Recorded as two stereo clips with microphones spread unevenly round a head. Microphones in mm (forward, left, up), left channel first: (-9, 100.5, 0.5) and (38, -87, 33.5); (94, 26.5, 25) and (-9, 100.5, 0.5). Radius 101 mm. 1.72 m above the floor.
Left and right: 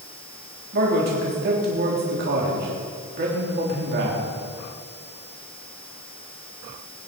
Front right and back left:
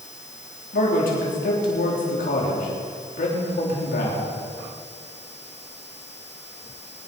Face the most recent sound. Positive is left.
turn(degrees=-40)